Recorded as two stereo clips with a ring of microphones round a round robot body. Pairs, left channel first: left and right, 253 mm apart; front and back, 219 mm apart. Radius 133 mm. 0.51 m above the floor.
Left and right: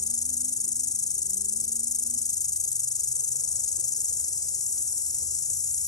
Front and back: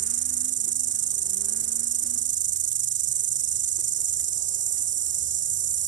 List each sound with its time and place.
0.0 s an insect: 165° left